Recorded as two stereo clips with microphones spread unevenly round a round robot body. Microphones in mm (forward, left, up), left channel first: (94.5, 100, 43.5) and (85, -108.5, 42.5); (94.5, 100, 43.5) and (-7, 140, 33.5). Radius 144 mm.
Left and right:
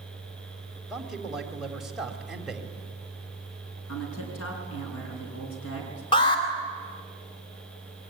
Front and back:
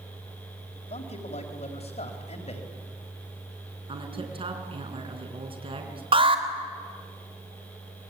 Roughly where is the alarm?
Behind left.